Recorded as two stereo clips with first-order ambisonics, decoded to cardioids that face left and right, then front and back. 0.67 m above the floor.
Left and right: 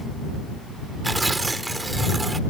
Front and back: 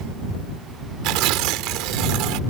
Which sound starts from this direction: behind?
Tearing paper, at 1.0 s.